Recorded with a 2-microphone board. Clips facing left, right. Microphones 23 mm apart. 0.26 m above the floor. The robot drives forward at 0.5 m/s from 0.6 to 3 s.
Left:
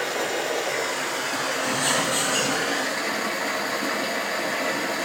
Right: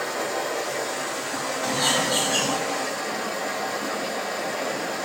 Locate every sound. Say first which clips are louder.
0.0 s running water: left 1 dB; 50° left (ahead or behind), 1.2 m; by 5.1 s 60° left (ahead or behind), 1.0 m
1.6 s a bird: right 3 dB; 50° right (ahead or behind), 0.7 m; by 2.6 s 35° right (ahead or behind), 1.0 m